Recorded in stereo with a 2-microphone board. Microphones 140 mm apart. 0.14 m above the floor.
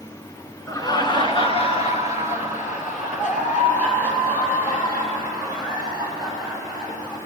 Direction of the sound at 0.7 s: 25° left (ahead or behind).